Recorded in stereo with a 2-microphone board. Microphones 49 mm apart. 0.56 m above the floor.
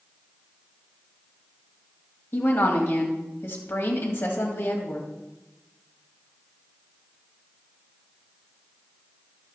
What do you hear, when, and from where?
2.3 s a woman speaking: 50° left (ahead or behind), 2.5 m